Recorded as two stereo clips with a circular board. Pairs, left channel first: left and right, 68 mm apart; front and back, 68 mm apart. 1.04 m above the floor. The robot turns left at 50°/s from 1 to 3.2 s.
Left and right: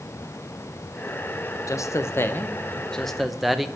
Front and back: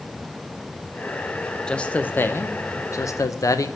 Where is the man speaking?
75° left, 0.5 m; by 3.7 s straight ahead, 0.5 m.